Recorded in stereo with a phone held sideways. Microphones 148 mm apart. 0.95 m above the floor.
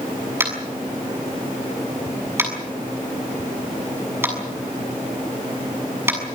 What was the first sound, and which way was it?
Tapping, 15° right (ahead or behind).